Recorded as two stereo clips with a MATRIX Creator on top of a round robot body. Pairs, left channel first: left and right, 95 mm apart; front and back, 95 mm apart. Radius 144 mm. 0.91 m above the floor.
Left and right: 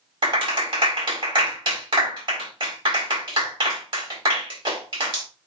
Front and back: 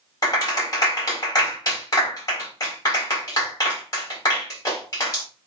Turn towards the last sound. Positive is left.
turn(degrees=-55)